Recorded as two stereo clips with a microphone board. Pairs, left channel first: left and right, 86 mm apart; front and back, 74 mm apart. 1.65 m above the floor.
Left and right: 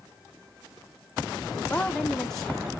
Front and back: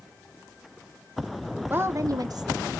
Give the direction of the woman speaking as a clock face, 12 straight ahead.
7 o'clock.